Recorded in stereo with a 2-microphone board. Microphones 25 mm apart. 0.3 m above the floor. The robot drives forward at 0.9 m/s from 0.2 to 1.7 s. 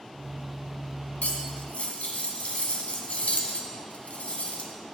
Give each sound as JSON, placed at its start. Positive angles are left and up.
{"t": 1.2, "sound": "cutlery clinking", "side_deg": 65, "distance_m": 1.4}